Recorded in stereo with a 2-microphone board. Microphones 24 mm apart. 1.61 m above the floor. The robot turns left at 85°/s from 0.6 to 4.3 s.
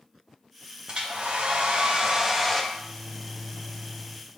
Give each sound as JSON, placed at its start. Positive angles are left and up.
{"t": 0.9, "sound": "a hair dryer", "azimuth_deg": -45, "distance_m": 0.6}
{"t": 2.7, "sound": "a microwave", "azimuth_deg": 45, "distance_m": 1.6}